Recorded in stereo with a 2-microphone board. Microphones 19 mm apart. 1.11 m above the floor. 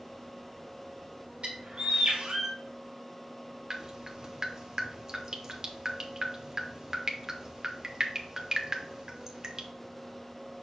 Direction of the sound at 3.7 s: 30° right (ahead or behind).